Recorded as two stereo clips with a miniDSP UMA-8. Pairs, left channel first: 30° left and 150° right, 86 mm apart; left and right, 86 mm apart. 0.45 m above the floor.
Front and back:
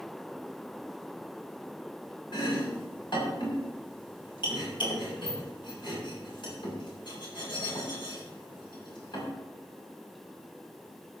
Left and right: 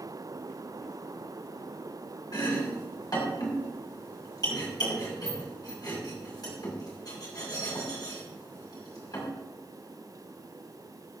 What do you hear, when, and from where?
2.3 s chopping: 50° left, 5.5 m